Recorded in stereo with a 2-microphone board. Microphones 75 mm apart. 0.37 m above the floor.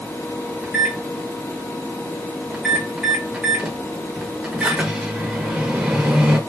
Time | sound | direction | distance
0.6 | a microwave | 10° right (ahead or behind) | 0.8 m